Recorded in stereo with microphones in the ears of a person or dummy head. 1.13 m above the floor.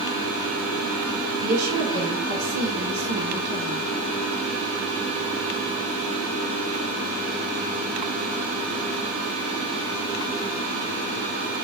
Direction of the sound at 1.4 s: 85° right.